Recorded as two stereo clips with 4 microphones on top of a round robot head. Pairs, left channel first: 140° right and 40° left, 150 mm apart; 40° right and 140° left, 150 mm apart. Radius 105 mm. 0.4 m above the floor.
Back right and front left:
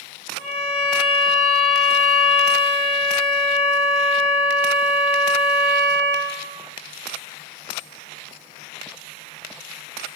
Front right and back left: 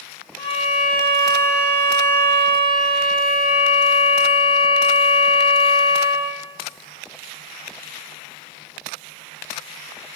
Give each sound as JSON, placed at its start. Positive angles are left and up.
{"t": 0.4, "sound": "a violin", "azimuth_deg": -65, "distance_m": 1.8}